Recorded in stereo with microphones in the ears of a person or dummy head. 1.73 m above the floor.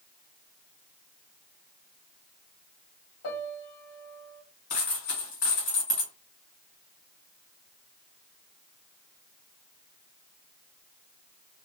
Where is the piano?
40° left (ahead or behind), 1.4 m.